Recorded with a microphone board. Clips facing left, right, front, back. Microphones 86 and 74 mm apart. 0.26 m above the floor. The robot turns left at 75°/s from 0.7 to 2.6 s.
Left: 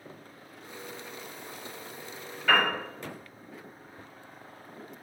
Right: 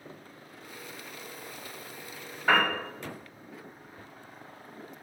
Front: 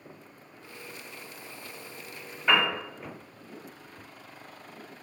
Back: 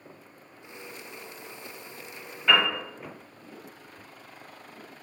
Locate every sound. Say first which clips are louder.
2.5 s a piano: even, back 1 dB; 70° right, 1.2 m; by 2.7 s 80° right, 1.2 m